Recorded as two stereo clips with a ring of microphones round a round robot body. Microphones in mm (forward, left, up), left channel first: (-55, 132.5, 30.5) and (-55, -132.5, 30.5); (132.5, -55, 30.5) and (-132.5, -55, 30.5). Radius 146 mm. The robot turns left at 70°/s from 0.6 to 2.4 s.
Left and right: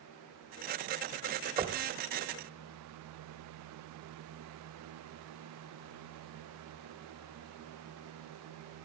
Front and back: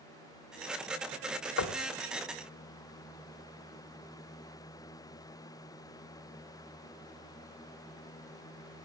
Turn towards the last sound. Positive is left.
turn(degrees=-75)